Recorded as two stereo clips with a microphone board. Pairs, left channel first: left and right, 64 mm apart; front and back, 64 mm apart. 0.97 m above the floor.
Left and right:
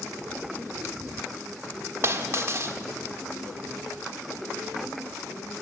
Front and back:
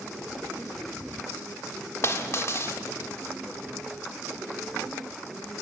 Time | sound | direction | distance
2.0 | a dropped coin | 45° right | 1.3 m